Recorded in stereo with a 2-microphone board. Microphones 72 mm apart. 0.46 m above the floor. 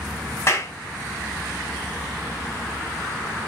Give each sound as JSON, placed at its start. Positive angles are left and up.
{"t": 0.5, "sound": "a clap", "side_deg": 35, "distance_m": 3.5}